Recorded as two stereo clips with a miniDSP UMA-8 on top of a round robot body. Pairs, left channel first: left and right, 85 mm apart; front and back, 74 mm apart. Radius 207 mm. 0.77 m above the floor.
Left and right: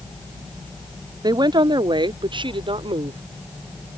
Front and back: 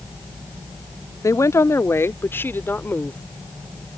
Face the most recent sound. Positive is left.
turn(degrees=-70)